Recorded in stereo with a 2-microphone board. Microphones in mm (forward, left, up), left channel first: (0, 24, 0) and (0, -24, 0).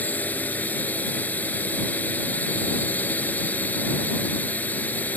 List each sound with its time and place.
0.0 s a drone: 35° left (ahead or behind)